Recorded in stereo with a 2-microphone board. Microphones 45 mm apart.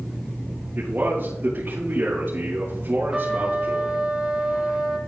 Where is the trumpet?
20° right (ahead or behind), 1.2 m.